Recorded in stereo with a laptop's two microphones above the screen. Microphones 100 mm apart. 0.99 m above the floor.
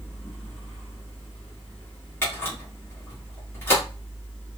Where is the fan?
20° left (ahead or behind), 1.6 m.